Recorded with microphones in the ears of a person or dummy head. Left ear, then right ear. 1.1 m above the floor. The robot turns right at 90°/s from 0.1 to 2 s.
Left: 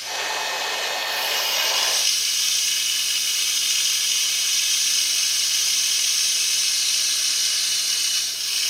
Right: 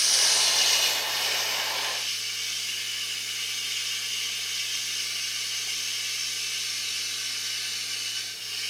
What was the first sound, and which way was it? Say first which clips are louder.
Running water: right 3 dB; 100° right.